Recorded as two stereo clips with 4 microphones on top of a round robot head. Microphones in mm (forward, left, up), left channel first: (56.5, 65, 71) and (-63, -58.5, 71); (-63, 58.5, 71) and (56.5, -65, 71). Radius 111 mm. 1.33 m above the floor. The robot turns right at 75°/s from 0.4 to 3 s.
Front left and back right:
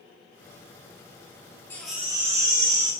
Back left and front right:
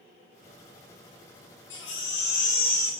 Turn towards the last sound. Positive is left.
turn(degrees=-140)